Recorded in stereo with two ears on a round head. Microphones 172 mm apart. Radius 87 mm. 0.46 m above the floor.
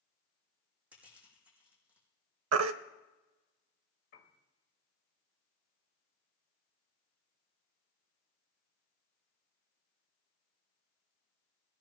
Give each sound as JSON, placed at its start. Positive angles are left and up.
{"t": 0.9, "sound": "crushing", "side_deg": -5, "distance_m": 5.5}
{"t": 2.5, "sound": "a baby crying", "side_deg": -80, "distance_m": 0.6}
{"t": 4.1, "sound": "a piano", "side_deg": 55, "distance_m": 1.7}